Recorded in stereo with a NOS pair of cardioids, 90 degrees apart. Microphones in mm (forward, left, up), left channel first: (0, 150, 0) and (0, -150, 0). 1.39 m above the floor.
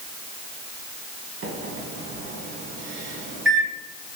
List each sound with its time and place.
1.4 s a microwave: 40° right, 1.4 m